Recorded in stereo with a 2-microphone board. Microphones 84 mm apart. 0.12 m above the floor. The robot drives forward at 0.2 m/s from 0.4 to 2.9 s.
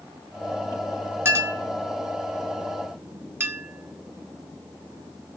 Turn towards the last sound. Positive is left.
turn(degrees=-30)  # may be behind; listen again after turning